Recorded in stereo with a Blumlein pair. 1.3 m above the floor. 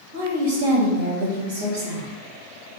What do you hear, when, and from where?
0.1 s a woman speaking: 60° right, 1.7 m